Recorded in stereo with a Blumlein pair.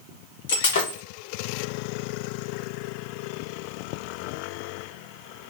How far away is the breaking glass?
About 1.1 m.